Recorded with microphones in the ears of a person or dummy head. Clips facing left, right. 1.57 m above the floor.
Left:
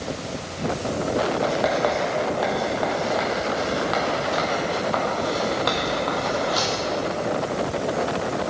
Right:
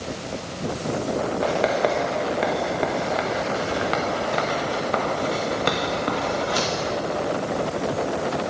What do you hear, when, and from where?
1.4 s writing: 30° right (ahead or behind), 1.2 m